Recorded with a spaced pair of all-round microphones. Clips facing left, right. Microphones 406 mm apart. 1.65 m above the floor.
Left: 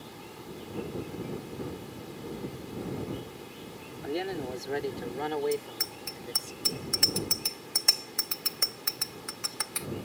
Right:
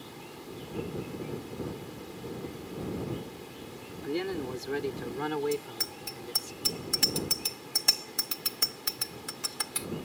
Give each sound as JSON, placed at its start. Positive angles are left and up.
{"t": 4.0, "sound": "a man speaking", "side_deg": -15}
{"t": 5.5, "sound": "a bicycle bell", "side_deg": -50}